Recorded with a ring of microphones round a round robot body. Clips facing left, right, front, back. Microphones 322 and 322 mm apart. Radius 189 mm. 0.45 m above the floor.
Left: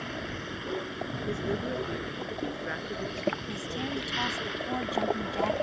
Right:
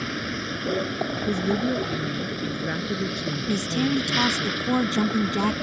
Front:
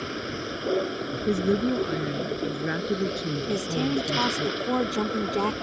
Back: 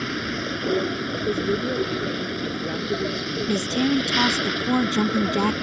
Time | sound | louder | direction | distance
0.0 | a vehicle | right 7 dB, back 4 dB | 125° right | ?
1.3 | a woman speaking | right 8 dB, front 1 dB | 60° right | ?
3.5 | a woman speaking | right 11 dB, back 5 dB | 125° right | ?